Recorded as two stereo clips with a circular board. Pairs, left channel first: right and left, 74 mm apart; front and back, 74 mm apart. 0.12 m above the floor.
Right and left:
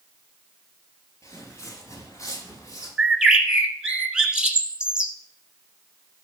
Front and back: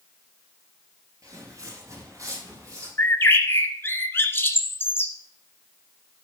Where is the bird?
15° left, 1.3 m.